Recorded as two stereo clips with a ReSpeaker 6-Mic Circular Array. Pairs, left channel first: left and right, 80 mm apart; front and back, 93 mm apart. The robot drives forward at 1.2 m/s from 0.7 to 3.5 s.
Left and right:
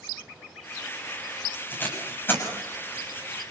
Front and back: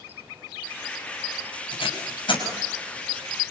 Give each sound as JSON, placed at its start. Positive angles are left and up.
{"t": 1.7, "sound": "tape being pulled", "azimuth_deg": 25, "distance_m": 7.0}